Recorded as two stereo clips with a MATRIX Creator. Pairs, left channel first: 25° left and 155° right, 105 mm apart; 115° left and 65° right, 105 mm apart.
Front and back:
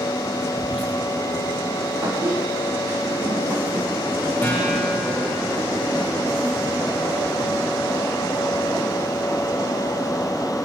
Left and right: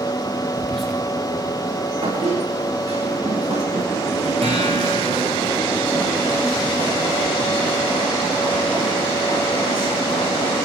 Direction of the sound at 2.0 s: 90° right.